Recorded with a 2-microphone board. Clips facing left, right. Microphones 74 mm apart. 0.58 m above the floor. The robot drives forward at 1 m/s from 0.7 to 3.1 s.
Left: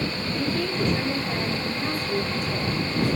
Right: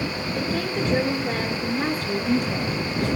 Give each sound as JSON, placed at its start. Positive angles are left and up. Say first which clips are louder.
{"t": 0.3, "sound": "a woman speaking", "louder": "even", "side_deg": -60, "distance_m": 10.0}